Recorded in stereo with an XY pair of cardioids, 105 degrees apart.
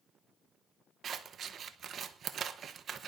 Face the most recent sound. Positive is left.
turn(degrees=-55)